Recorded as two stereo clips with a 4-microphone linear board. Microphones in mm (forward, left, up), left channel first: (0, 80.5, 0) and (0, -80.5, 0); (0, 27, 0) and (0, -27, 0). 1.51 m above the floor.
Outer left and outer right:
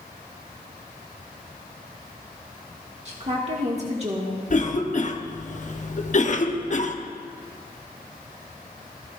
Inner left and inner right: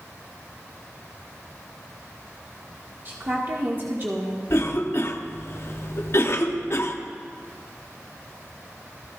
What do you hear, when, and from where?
3.0 s a woman speaking: 45° right (ahead or behind), 1.6 m
4.5 s a cough: 50° left (ahead or behind), 0.8 m